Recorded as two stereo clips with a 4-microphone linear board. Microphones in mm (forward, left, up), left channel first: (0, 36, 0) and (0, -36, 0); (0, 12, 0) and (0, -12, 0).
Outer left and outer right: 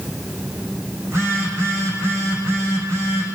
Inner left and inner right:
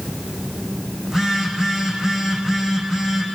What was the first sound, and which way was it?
A phone buzzing, 35° right (ahead or behind).